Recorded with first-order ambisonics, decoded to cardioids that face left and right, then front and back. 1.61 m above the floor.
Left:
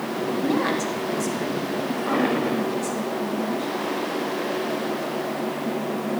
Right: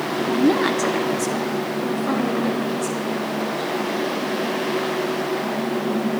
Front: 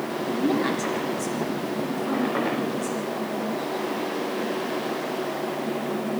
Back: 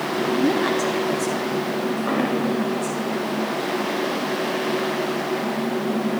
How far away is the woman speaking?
About 3.5 m.